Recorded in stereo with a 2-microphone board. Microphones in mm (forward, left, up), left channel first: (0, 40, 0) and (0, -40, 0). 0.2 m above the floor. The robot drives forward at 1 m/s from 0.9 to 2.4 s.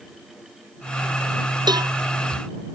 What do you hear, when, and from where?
1.7 s a cowbell: 60° right (ahead or behind)